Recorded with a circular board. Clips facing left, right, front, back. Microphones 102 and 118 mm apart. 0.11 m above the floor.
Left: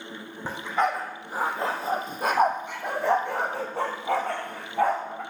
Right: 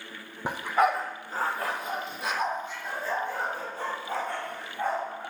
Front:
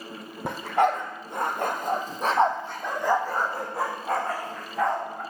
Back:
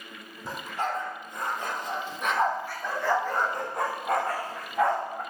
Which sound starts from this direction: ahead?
A dog barking, at 0.5 s.